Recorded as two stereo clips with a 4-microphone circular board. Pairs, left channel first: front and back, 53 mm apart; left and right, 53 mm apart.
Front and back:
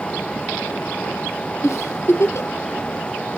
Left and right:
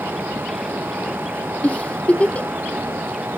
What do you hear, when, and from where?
1.6 s a giggle: 25° left, 0.7 m